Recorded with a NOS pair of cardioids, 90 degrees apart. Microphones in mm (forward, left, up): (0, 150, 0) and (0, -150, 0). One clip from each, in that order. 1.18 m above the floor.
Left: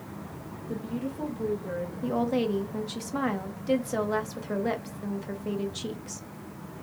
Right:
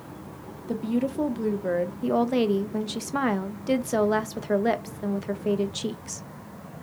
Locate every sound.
0.7 s a woman speaking: 65° right, 0.8 m
2.0 s a woman speaking: 25° right, 0.5 m